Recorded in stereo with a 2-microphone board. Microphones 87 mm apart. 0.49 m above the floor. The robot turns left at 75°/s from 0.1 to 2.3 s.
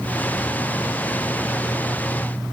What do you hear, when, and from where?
Only background noise.